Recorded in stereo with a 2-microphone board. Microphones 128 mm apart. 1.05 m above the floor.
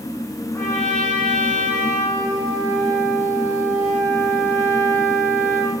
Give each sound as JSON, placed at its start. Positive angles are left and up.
{"t": 0.5, "sound": "a trumpet", "side_deg": 15, "distance_m": 5.5}